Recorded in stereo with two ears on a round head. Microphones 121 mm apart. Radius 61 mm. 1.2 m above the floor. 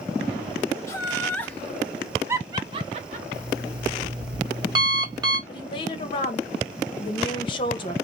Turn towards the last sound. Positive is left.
turn(degrees=40)  # may be behind; listen again after turning